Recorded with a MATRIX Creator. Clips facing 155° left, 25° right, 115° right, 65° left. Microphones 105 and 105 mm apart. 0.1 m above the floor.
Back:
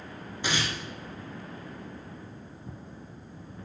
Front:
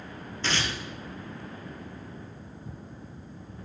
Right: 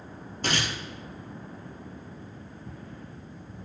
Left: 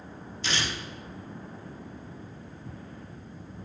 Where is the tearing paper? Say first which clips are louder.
Even, right 2 dB; 130° right, 1.9 m.